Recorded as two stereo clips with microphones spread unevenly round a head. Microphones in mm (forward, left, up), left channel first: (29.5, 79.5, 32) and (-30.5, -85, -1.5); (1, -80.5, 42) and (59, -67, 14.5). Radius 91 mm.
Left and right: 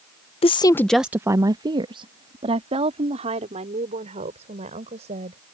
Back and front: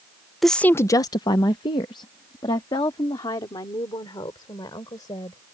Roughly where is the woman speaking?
Ahead left.